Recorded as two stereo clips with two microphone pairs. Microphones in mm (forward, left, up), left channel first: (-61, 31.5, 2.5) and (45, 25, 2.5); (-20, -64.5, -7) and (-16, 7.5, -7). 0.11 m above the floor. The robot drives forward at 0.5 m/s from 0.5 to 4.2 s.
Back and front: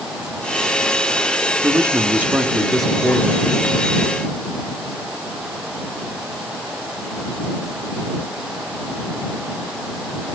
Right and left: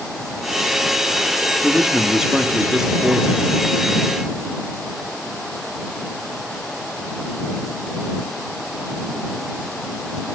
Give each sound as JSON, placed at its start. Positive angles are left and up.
{"t": 1.6, "sound": "a man speaking", "azimuth_deg": 10, "distance_m": 1.1}